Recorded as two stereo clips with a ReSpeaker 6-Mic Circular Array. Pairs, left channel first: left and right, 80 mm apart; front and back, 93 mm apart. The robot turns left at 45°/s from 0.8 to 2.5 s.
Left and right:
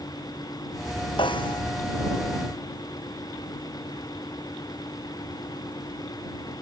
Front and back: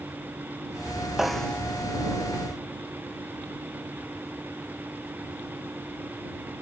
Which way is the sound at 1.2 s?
95° left.